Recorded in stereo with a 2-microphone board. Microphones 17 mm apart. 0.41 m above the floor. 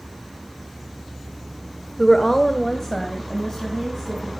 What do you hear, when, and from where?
2.0 s a woman speaking: 15° left (ahead or behind), 1.1 m; by 4.3 s 35° left (ahead or behind), 4 m